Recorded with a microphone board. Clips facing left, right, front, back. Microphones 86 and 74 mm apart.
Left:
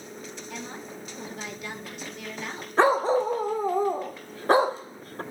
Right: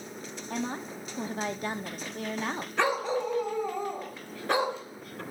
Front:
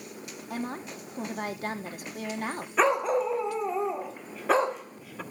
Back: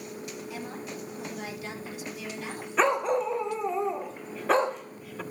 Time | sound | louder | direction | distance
0.5 | a woman speaking | right 7 dB, front 6 dB | 40° right | 2.5 m
2.8 | a dog barking | left 7 dB, even | 85° left | 1.1 m